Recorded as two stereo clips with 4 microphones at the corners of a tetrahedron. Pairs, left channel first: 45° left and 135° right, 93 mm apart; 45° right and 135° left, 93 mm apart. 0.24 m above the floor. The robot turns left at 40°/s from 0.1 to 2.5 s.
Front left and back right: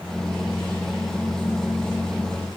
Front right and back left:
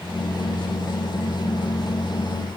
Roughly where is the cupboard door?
No cupboard door in this recording.